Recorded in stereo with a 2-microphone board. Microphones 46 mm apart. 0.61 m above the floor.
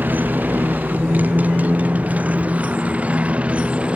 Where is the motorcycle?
40° right (ahead or behind); by 4.0 s 25° right (ahead or behind).